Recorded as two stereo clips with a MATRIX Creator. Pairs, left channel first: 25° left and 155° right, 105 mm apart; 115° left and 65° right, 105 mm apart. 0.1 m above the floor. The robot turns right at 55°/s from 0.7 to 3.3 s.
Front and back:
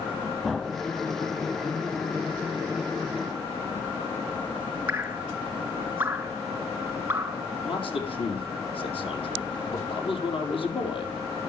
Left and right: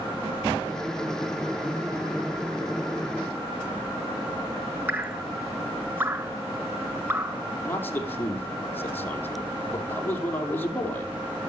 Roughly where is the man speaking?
Ahead left.